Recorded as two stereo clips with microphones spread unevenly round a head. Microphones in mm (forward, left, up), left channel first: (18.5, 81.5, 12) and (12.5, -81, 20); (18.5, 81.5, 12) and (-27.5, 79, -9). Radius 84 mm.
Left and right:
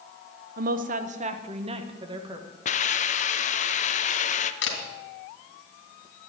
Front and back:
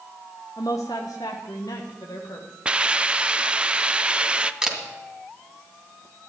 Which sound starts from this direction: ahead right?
A woman speaking, at 0.6 s.